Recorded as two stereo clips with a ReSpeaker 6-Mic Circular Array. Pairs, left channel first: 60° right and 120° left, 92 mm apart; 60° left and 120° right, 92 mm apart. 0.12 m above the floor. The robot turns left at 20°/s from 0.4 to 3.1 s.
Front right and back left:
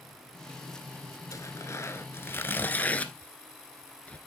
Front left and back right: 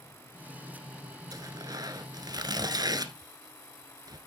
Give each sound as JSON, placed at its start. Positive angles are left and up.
{"t": 1.3, "sound": "tearing paper", "azimuth_deg": -95, "distance_m": 1.0}